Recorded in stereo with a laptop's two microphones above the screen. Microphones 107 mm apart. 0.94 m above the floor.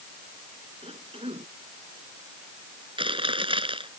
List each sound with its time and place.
0.8 s a cough: 60° right (ahead or behind)
3.0 s chewing: 50° right (ahead or behind)